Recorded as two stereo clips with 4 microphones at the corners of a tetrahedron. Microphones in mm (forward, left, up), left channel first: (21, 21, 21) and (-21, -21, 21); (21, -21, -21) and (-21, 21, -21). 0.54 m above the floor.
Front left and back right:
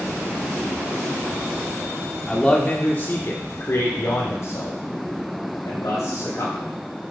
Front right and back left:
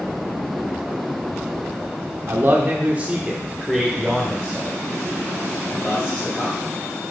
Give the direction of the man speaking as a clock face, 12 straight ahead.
8 o'clock.